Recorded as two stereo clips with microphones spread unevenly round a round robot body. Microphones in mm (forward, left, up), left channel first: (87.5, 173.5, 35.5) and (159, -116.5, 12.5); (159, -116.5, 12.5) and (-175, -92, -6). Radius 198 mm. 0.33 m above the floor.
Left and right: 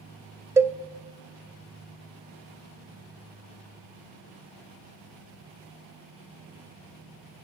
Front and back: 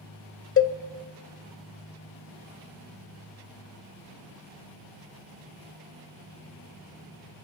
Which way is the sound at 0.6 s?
5° right.